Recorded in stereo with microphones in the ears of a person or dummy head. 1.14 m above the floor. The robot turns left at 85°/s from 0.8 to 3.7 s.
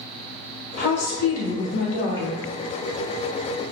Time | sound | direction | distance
0.8 | a woman speaking | 135° left | 0.9 m